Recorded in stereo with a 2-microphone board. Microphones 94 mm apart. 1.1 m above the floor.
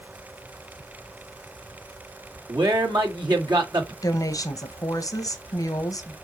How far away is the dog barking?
No dog barking in this recording.